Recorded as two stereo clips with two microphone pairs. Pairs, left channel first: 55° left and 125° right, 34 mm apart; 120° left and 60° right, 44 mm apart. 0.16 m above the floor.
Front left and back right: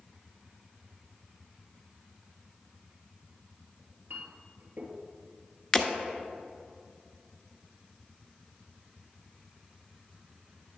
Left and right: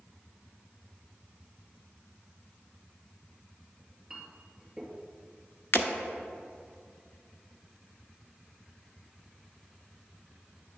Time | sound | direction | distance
3.8 | a clink | 140° right | 2.0 m
5.7 | breaking glass | 125° left | 1.0 m